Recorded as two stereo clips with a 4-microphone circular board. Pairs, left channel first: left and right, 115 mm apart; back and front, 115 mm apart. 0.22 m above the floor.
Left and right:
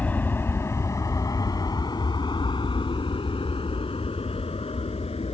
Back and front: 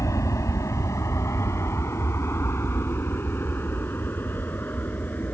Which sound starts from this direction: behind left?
An aircraft, at 0.0 s.